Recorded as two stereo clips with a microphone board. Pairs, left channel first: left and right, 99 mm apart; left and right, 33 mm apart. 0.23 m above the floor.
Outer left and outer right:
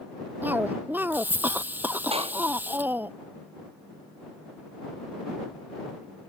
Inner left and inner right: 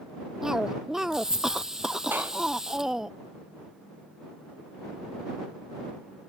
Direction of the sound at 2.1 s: 80° right.